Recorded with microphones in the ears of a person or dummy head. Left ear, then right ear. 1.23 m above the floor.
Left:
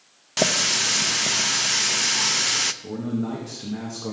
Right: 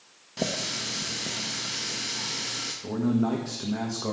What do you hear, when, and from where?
0.4 s a running tap: 50° left (ahead or behind), 0.7 m
2.8 s a man speaking: 25° right (ahead or behind), 1.7 m